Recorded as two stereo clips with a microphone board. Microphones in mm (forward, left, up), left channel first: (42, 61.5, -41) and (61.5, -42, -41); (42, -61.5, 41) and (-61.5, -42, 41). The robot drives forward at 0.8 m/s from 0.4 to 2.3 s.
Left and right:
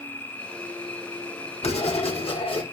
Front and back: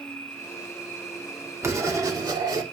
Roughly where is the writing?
Left.